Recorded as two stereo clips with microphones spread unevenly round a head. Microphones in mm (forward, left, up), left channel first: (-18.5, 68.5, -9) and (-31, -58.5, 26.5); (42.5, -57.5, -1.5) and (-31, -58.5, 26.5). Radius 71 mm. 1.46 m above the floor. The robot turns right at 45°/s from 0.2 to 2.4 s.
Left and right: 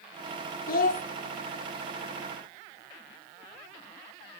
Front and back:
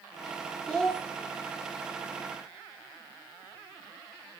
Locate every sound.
0.7 s a child speaking: 95° left, 0.7 m; by 1.0 s 110° left, 0.7 m